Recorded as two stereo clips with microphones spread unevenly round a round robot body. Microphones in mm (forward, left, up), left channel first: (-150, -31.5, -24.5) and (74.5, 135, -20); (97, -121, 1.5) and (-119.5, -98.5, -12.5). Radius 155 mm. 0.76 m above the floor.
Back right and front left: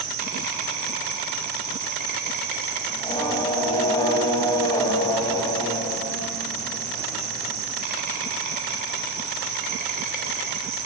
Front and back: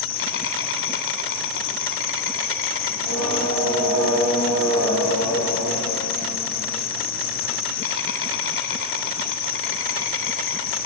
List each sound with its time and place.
0.0 s an insect: 25° right, 3.5 m
2.9 s singing: 140° left, 4.5 m